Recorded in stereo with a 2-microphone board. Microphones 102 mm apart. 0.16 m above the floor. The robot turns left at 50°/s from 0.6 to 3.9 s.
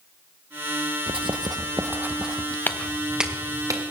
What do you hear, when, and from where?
1.1 s writing: 115° right, 1.2 m; by 2.6 s 170° left, 1.2 m
2.7 s footsteps: 20° left (ahead or behind), 1.2 m; by 3.8 s 40° right (ahead or behind), 2.5 m